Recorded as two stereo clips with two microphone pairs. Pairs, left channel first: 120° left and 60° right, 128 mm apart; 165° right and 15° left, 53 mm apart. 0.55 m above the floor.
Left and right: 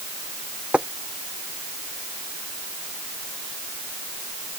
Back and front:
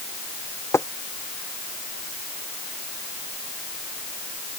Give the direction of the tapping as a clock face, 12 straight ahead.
5 o'clock.